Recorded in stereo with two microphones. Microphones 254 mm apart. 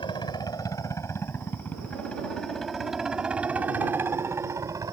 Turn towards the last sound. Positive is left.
turn(degrees=-15)  # may be behind; listen again after turning